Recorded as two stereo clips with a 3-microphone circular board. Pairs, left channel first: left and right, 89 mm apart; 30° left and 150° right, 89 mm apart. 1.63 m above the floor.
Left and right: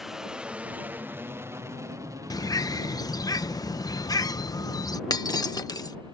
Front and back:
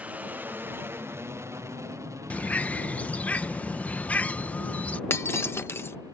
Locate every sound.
0.0 s an aircraft: 170° right; by 6.1 s 105° right
2.3 s a bird: 95° left
5.1 s breaking glass: 80° left